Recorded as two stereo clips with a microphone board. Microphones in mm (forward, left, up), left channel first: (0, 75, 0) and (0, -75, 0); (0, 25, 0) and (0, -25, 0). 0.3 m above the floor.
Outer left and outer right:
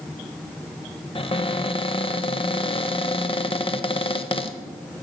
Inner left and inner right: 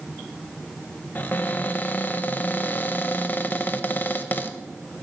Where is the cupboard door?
35° left (ahead or behind), 0.6 m.